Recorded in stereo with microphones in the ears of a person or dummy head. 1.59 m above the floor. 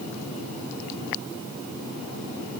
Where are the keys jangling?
I don't hear keys jangling.